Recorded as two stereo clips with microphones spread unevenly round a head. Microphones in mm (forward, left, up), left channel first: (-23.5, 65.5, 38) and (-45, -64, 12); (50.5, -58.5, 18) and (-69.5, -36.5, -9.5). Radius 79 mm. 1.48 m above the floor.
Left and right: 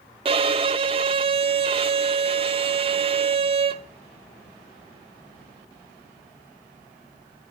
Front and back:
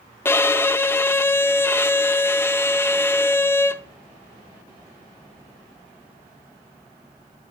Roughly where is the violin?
Ahead right.